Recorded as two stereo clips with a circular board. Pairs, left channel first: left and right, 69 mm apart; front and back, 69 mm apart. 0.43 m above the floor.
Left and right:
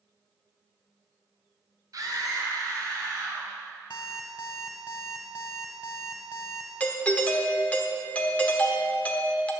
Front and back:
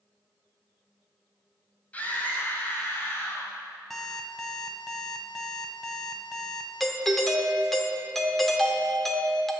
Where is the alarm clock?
90° left, 1.3 m.